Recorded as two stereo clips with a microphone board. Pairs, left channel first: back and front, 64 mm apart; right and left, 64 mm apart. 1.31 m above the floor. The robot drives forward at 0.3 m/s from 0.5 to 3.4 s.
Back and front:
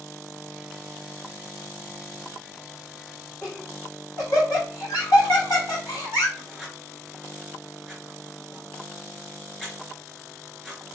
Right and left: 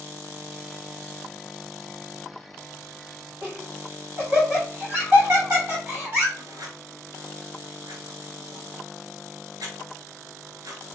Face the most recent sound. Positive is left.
turn(degrees=95)